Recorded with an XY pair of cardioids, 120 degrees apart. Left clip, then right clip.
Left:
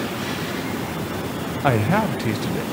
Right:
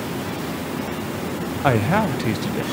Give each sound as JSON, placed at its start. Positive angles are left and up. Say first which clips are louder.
{"t": 1.6, "sound": "a man speaking", "louder": "right 1 dB", "azimuth_deg": -5, "distance_m": 1.4}